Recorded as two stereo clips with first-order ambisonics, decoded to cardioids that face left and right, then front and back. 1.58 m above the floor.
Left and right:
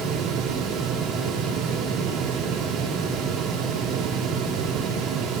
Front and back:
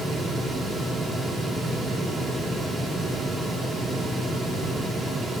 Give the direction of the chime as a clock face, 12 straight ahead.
I don't hear a chime.